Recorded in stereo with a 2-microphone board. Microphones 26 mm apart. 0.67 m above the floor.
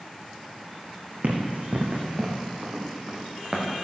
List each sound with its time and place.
1.2 s running footsteps: 75° right (ahead or behind), 2.5 m; by 3.8 s 45° right (ahead or behind), 4.5 m